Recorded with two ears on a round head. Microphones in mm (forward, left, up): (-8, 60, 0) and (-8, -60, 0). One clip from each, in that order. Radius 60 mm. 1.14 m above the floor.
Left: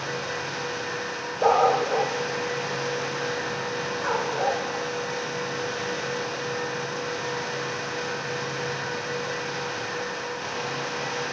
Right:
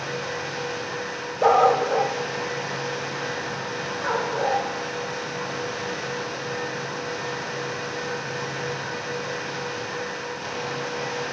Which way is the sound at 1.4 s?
20° right (ahead or behind).